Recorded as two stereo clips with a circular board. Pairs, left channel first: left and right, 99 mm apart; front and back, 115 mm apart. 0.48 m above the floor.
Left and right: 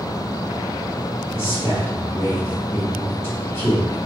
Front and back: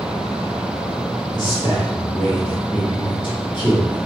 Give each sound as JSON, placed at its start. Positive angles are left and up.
{"t": 1.3, "sound": "a man speaking", "azimuth_deg": 35, "distance_m": 1.4}